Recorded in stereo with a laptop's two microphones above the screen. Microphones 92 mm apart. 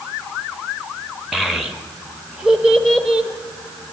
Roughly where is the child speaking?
Centre.